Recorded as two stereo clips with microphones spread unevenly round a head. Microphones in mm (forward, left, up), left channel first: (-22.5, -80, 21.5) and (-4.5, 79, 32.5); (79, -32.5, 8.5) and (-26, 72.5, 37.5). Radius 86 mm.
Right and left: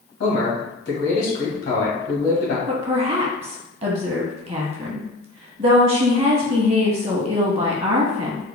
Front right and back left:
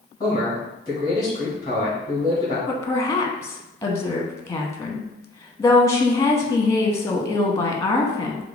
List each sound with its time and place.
0.2 s a man speaking: 110° right, 1.9 m
2.7 s a woman speaking: 25° left, 0.8 m